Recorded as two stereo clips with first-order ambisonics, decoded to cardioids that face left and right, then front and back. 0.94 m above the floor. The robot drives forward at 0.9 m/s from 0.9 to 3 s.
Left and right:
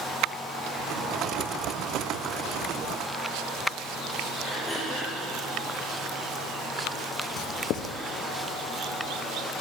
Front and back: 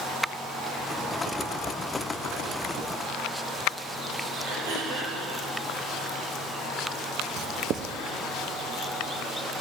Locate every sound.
4.5 s throat clearing: straight behind, 3.5 m
7.4 s writing: 130° left, 0.5 m